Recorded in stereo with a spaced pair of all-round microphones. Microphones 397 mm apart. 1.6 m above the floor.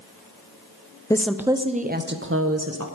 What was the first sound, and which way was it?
A woman speaking, 10° left (ahead or behind).